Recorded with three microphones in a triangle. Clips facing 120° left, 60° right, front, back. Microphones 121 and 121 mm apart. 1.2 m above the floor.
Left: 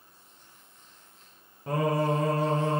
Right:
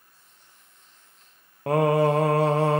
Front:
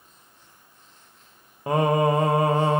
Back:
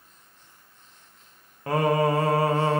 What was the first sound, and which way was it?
Singing, 70° right.